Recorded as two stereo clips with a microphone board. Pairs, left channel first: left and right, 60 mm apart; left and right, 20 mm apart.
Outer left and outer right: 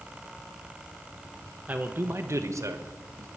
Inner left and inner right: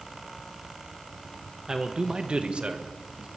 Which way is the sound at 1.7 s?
25° right (ahead or behind).